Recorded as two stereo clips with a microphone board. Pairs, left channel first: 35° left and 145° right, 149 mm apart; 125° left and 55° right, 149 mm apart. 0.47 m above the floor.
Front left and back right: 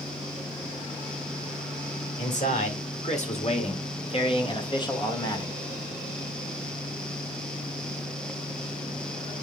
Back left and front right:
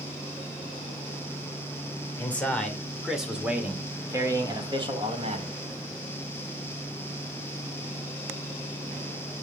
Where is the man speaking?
50° left, 2 m; by 5.5 s 30° right, 2.0 m.